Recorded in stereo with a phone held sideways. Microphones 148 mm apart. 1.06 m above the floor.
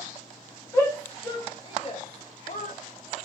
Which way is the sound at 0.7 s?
20° left (ahead or behind).